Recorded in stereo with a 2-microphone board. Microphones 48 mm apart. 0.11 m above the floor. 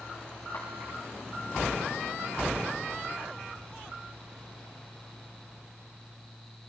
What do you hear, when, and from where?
0.5 s a clap: 60° left (ahead or behind), 6.5 m